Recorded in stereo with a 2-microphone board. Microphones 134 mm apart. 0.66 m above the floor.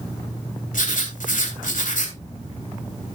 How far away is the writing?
About 3 m.